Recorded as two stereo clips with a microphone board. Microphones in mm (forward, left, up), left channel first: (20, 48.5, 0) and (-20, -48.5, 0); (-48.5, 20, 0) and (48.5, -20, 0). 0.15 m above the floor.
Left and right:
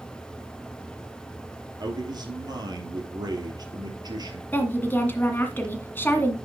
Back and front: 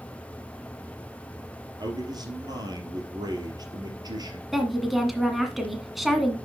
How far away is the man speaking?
About 2.5 m.